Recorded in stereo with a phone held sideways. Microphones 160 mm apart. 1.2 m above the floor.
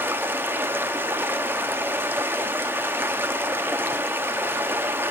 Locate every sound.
0.0 s running water: 15° right (ahead or behind), 0.8 m